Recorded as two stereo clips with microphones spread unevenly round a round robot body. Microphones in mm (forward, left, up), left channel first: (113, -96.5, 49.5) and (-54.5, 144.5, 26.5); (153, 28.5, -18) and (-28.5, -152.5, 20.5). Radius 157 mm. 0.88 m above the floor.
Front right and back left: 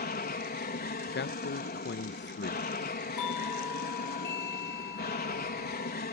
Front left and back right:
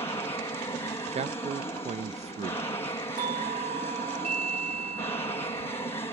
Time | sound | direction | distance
0.0 | an aircraft | 15° right | ?
1.1 | a man speaking | 75° right | ?
3.2 | a doorbell | 75° right | ?